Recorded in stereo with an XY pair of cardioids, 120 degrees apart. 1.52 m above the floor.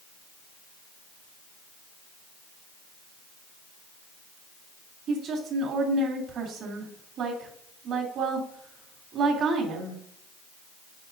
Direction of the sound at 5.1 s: 60° right.